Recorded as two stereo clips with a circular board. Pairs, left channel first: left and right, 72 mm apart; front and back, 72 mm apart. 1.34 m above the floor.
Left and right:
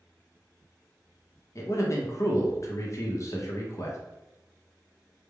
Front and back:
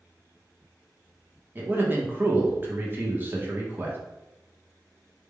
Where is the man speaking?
125° left, 0.7 m.